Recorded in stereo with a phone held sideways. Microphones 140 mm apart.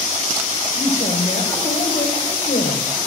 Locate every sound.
0.8 s a woman speaking: 80° left, 5.5 m